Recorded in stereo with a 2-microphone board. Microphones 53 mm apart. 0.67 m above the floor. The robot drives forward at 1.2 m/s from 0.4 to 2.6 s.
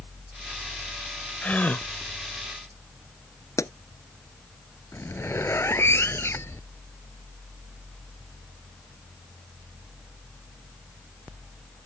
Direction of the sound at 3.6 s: 75° left (ahead or behind).